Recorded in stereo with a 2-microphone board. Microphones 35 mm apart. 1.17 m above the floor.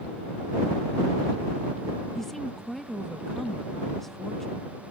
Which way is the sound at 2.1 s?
10° left (ahead or behind).